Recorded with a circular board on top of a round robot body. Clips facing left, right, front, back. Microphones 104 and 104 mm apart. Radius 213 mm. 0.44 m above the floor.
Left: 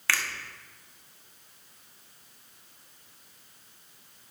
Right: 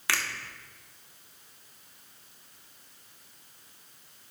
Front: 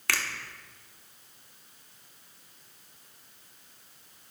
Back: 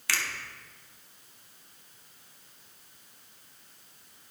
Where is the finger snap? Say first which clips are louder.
Left 1 dB, front 2 dB; 20° right, 1.6 m.